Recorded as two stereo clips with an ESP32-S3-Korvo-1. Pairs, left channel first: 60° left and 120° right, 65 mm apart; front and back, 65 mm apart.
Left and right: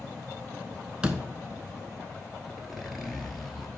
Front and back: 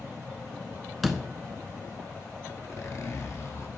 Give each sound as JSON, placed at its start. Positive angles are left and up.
{"t": 1.0, "sound": "a door slam", "azimuth_deg": -90, "distance_m": 0.8}
{"t": 2.5, "sound": "a zipper", "azimuth_deg": -30, "distance_m": 1.2}